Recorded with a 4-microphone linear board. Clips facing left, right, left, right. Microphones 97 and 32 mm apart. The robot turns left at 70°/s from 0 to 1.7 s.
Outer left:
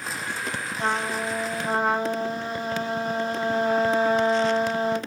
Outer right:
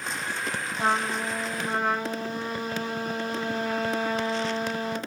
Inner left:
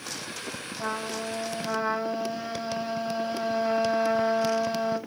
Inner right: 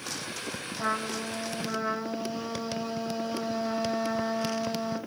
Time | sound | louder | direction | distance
0.8 | a trumpet | even, inner right 1 dB | 165° right | 0.9 m